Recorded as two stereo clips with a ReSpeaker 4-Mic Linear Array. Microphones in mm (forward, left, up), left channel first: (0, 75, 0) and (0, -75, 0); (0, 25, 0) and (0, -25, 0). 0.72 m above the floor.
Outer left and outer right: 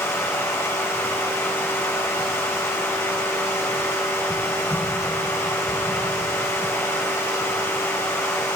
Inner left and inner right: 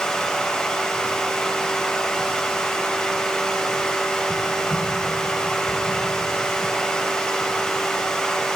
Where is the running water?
20° left (ahead or behind), 2.5 m.